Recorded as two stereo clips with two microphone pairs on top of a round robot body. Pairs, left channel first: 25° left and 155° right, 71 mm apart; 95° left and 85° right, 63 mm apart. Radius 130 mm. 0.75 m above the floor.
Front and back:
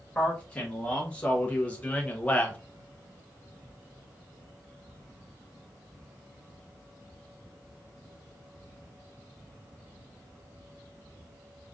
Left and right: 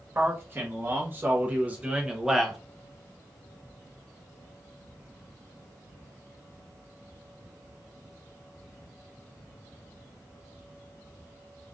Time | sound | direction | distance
0.1 | a man speaking | 40° right | 1.7 m